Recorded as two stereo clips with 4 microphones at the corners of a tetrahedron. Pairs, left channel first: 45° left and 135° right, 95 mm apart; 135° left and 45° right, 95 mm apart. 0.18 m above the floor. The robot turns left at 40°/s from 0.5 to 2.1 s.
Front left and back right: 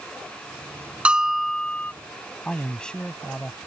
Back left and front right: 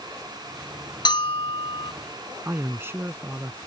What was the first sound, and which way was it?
A bell, 150° left.